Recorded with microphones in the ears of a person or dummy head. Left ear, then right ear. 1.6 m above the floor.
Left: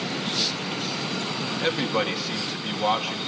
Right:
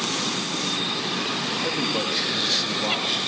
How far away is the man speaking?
About 2.5 m.